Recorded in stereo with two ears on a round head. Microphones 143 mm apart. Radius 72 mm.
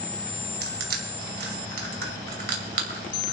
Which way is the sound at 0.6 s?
75° right (ahead or behind).